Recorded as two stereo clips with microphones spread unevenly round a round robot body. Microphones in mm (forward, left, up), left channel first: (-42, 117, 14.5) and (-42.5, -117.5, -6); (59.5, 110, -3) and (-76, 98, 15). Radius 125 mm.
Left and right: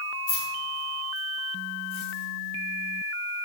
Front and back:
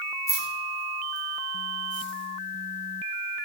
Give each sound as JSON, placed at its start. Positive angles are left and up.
{"t": 0.3, "sound": "keys jangling", "azimuth_deg": 70, "distance_m": 1.4}